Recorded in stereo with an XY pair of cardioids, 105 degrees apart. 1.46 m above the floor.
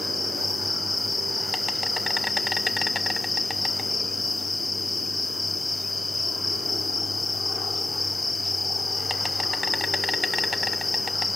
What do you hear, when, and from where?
0.0 s an insect: 25° left, 0.8 m